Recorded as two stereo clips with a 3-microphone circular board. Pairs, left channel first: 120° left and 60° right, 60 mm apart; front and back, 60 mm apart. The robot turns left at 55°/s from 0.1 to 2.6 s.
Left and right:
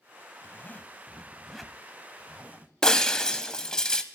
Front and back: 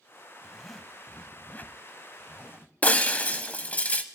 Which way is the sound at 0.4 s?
100° left.